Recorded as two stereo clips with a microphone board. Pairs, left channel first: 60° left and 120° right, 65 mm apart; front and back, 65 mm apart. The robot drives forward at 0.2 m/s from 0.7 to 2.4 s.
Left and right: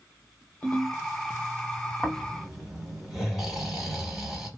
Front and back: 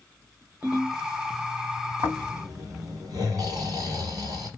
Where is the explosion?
No explosion in this recording.